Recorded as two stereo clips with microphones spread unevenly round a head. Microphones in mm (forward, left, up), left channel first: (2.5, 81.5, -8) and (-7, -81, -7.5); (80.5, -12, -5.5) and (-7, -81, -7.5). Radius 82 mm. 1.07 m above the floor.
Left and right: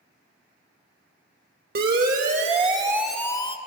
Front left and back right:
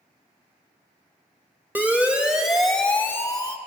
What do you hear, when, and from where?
1.8 s a siren: 65° right, 2.5 m; by 3.6 s 65° left, 1.3 m